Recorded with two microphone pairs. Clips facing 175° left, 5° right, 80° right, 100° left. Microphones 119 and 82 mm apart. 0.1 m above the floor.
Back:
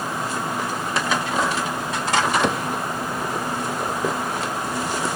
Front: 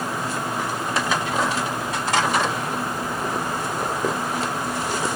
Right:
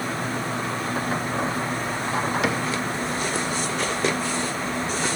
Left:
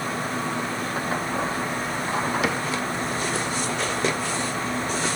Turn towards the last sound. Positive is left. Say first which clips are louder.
# back 3 dB, right 1 dB
turn(degrees=-170)